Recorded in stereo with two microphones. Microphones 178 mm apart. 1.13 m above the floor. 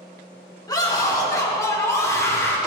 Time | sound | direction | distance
0.7 | a scream | 25° left (ahead or behind) | 3.5 m